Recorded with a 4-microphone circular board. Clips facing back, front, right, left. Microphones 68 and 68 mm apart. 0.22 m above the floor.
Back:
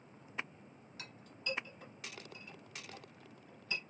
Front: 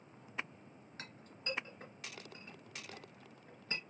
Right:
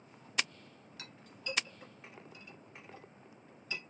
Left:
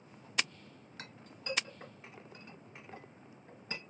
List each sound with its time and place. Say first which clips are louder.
1.0 s a clink: back 1 dB, even; 45° left, 2 m